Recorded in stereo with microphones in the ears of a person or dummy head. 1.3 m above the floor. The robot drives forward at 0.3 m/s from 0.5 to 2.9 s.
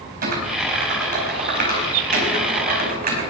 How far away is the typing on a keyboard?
About 4 m.